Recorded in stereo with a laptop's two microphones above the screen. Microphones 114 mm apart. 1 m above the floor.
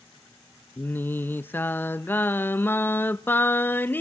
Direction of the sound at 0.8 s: 20° left (ahead or behind).